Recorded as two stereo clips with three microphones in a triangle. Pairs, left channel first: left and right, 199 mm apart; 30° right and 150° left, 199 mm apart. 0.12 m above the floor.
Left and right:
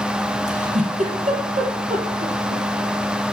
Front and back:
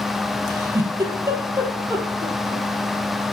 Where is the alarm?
No alarm in this recording.